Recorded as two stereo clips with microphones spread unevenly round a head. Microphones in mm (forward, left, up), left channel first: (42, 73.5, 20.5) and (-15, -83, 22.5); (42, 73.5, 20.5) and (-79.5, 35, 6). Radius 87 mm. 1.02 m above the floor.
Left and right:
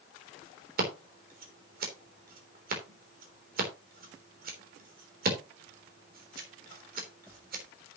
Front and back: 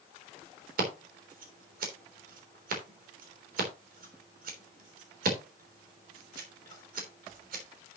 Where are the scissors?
150° right, 3.5 m.